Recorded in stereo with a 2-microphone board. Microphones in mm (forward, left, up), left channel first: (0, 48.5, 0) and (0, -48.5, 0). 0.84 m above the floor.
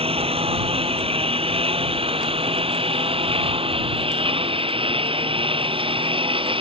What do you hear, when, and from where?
0.0 s a lawn mower: 80° right; by 6.6 s 65° right (ahead or behind)